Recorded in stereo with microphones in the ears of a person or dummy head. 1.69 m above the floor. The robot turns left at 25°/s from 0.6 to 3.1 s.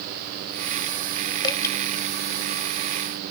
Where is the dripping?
25° left (ahead or behind); by 1.8 s 20° left (ahead or behind).